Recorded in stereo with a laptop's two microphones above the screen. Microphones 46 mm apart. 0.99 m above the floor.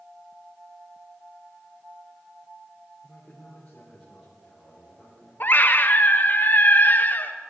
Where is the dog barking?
I don't hear a dog barking.